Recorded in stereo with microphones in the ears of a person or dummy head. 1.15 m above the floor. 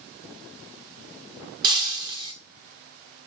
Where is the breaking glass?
25° right (ahead or behind), 0.7 m.